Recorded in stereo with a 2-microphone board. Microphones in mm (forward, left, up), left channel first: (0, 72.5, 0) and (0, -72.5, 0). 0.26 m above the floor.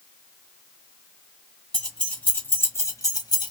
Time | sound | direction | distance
1.7 | keys jangling | 5° left (ahead or behind) | 1.6 m